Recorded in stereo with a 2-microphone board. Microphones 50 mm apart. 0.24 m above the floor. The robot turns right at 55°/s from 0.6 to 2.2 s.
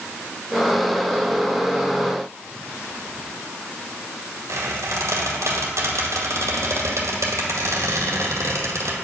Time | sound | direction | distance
4.5 | a squeak | 80° right | 1.8 m